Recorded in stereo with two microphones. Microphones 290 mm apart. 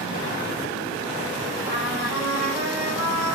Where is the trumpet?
10° right (ahead or behind), 5.5 m.